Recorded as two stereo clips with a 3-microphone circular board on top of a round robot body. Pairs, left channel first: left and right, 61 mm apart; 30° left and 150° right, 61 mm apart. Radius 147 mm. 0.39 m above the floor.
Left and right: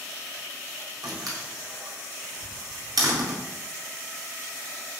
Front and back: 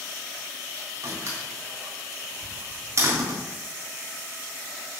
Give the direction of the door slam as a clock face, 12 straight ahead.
4 o'clock.